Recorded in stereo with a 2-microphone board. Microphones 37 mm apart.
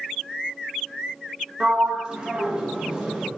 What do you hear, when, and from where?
1.6 s a sliding door: 20° right (ahead or behind), 0.9 m